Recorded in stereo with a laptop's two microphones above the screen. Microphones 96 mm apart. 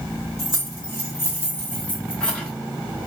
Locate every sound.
0.4 s keys jangling: 35° left (ahead or behind), 2 m; by 2.5 s 5° left (ahead or behind), 1.6 m